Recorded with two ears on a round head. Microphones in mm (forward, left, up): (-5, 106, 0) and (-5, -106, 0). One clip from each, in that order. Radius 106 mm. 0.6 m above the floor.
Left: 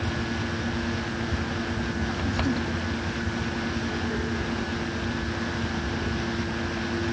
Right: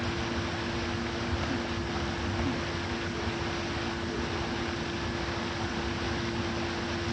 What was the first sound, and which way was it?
Only background noise.